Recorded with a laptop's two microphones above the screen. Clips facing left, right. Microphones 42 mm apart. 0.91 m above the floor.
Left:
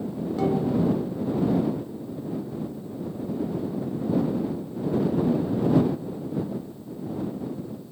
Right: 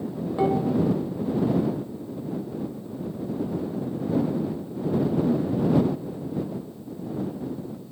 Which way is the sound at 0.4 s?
20° right (ahead or behind).